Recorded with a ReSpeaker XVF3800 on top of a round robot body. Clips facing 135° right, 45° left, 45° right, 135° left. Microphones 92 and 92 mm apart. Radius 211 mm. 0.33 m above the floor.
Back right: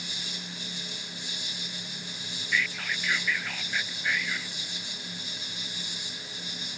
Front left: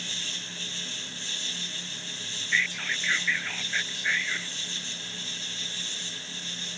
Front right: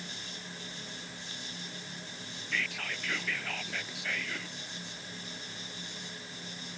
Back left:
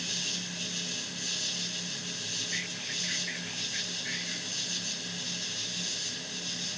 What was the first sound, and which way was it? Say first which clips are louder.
An insect: even, back left 4 dB; 145° left.